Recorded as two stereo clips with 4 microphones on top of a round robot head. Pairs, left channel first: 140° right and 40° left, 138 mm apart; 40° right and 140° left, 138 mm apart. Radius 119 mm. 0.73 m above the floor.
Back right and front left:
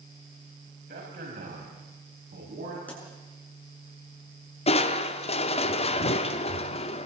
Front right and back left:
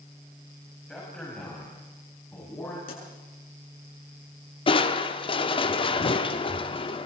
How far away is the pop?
About 7.5 m.